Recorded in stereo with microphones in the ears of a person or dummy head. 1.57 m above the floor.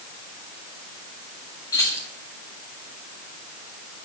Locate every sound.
1.7 s keys jangling: 15° left (ahead or behind), 4.5 m